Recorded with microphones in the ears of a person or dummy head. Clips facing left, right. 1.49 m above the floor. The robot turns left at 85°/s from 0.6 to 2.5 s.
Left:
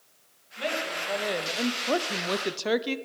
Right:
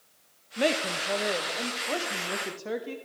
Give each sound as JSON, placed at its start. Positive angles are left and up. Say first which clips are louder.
{"t": 0.6, "sound": "a woman speaking", "louder": "right 5 dB", "azimuth_deg": -120, "distance_m": 0.5}